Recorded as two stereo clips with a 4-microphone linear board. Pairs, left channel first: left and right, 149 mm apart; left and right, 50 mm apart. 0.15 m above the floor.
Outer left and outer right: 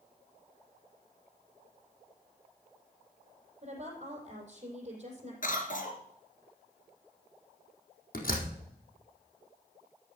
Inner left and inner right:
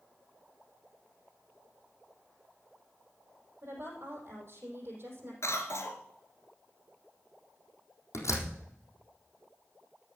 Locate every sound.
3.6 s a woman speaking: 45° right (ahead or behind), 5 m
5.4 s a cough: 60° left (ahead or behind), 2.5 m
8.1 s a door slam: 60° left (ahead or behind), 4 m